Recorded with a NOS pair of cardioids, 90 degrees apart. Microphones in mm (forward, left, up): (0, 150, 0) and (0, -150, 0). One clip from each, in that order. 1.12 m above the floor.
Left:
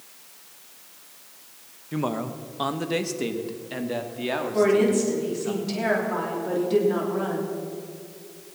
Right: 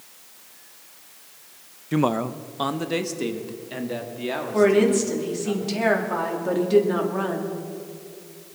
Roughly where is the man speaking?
Ahead right.